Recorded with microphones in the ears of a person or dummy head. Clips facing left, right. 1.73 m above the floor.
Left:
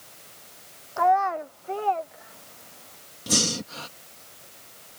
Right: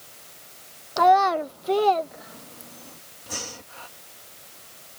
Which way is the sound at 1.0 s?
40° right (ahead or behind).